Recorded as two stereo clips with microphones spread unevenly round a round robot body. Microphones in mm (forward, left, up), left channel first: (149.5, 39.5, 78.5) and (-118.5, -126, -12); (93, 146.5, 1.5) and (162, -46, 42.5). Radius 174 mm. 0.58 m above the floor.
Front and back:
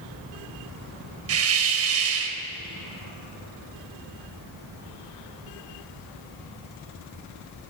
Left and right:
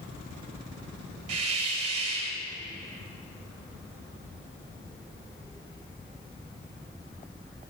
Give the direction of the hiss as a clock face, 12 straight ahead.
3 o'clock.